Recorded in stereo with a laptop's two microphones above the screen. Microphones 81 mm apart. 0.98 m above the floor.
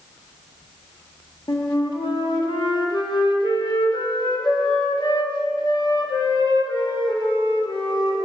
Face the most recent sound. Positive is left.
turn(degrees=80)